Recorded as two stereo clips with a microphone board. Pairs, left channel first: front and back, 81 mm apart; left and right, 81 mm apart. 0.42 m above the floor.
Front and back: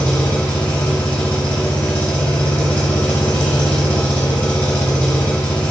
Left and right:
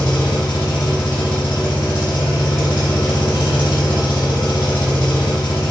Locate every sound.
0.0 s an engine running: 70° left, 0.9 m